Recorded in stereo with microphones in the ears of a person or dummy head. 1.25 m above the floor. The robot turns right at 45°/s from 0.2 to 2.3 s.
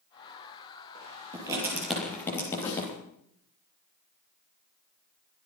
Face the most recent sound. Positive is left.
turn(degrees=35)  # may be behind; listen again after turning